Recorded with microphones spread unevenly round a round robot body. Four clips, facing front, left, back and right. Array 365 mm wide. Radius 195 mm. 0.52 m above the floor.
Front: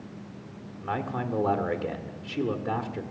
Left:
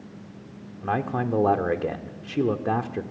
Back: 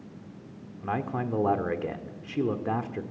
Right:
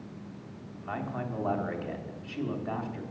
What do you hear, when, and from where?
0.8 s a man speaking: 90° left, 1.9 m